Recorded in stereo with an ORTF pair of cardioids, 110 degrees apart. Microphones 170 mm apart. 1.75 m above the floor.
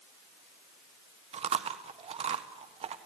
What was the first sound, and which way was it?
Chewing, 40° right.